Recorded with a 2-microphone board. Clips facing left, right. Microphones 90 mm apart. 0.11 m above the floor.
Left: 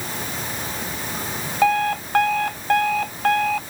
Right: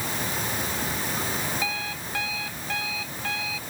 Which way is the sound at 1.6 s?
60° left (ahead or behind).